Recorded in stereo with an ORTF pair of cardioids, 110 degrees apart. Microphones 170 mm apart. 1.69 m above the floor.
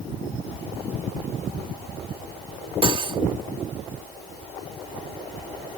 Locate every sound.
2.8 s cutlery clinking: 35° right